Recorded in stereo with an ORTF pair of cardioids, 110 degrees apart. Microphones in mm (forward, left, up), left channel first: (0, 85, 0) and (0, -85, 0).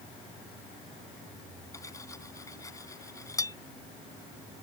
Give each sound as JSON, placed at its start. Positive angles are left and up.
{"t": 1.7, "sound": "cutlery clinking", "azimuth_deg": 20}